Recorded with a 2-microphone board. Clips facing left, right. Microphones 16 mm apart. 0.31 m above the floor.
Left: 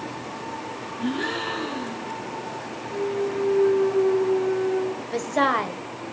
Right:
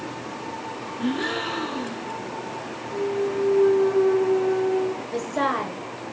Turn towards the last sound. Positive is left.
turn(degrees=20)  # may be behind; listen again after turning